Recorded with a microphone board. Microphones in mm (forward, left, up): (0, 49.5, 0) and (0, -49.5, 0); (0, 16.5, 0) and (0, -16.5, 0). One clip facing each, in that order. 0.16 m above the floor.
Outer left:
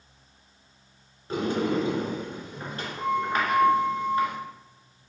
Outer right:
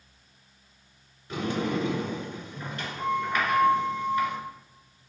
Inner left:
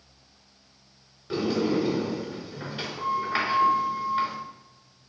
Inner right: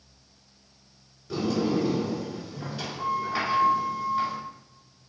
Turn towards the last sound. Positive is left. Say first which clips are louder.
# outer left 3 dB, inner left 1 dB
turn(degrees=35)  # may be behind; listen again after turning